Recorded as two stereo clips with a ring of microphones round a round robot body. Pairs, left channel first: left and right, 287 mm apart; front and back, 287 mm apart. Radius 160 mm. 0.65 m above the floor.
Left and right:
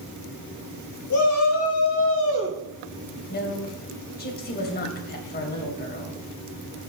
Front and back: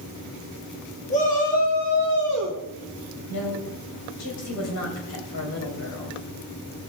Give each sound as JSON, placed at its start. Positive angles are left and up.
{"t": 1.1, "sound": "a shout", "azimuth_deg": 65, "distance_m": 3.5}
{"t": 3.3, "sound": "a woman speaking", "azimuth_deg": 35, "distance_m": 3.5}